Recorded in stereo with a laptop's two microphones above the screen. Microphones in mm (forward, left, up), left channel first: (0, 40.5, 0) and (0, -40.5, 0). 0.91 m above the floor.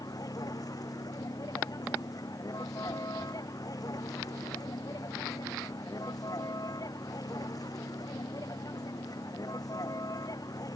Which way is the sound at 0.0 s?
50° left (ahead or behind).